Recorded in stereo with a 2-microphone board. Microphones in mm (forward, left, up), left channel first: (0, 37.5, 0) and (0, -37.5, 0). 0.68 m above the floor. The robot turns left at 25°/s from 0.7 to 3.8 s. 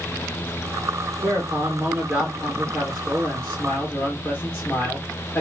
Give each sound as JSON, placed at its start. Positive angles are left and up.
{"t": 1.2, "sound": "a man speaking", "azimuth_deg": -125, "distance_m": 1.8}